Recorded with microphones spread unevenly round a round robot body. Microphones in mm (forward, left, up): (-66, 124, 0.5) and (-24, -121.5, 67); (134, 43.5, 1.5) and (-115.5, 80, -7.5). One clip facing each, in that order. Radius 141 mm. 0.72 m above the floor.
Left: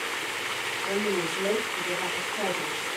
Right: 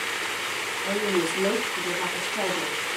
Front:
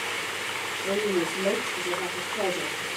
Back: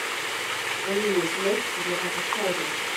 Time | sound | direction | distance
0.8 | a woman speaking | 95° right | 5 m